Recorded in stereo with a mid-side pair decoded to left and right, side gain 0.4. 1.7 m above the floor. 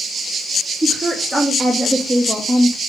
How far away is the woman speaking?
About 3.5 m.